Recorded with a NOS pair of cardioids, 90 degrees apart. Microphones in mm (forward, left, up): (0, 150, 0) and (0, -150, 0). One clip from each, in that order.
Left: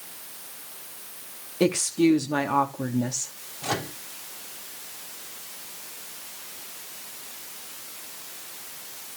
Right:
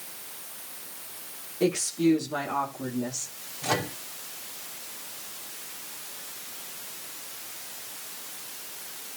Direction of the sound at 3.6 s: 10° left.